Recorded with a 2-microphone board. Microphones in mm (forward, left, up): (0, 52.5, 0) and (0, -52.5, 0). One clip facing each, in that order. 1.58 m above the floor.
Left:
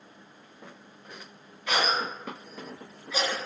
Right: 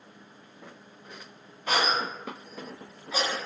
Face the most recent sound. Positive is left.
turn(degrees=-40)  # may be behind; listen again after turning